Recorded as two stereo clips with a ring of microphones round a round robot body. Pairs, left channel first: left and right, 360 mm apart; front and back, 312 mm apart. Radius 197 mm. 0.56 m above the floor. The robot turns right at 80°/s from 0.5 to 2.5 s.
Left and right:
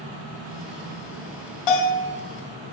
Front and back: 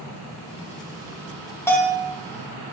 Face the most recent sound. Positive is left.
turn(degrees=150)